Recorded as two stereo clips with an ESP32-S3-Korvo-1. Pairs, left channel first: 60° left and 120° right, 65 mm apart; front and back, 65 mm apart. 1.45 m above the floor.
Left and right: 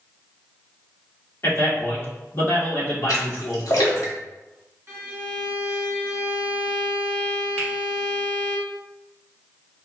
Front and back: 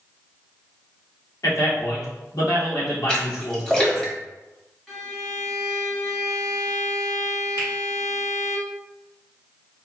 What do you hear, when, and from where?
1.4 s a man speaking: 15° left, 1.8 m
3.1 s a splash: 70° left, 1.1 m
4.9 s a violin: 85° right, 1.3 m
7.6 s a finger snap: straight ahead, 1.6 m